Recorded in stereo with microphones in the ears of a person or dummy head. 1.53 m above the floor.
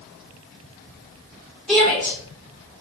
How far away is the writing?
No writing in this recording.